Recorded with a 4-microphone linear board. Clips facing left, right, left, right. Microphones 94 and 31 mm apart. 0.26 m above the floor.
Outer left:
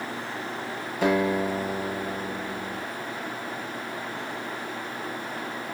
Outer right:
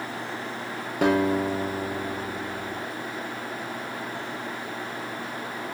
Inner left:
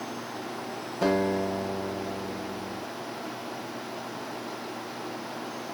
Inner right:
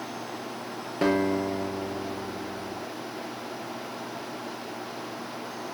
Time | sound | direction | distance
1.0 | a guitar | 55° right (ahead or behind) | 5.5 m